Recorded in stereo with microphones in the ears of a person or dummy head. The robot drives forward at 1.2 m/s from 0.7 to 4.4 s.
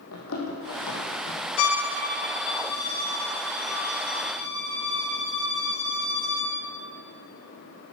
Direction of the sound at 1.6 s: 70° left (ahead or behind).